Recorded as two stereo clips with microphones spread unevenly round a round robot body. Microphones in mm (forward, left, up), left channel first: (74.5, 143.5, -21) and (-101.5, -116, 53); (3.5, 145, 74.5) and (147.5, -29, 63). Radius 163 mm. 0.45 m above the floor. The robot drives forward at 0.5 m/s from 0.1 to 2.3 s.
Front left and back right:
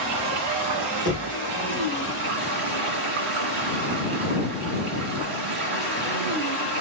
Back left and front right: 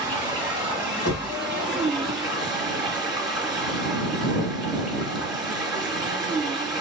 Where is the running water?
120° right, 2 m; by 6.8 s 140° right, 3 m.